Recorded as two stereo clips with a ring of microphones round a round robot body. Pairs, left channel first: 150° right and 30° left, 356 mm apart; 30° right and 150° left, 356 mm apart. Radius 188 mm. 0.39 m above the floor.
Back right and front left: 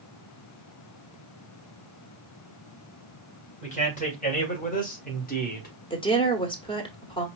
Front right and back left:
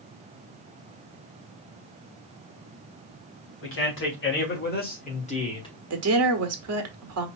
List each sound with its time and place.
3.6 s a man speaking: 80° right, 2.5 m; by 5.8 s 100° right, 1.5 m
5.9 s a woman speaking: 140° left, 1.4 m